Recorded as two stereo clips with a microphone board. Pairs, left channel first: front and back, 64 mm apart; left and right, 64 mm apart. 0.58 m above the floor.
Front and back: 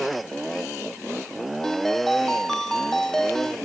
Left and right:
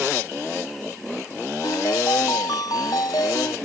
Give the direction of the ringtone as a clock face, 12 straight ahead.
9 o'clock.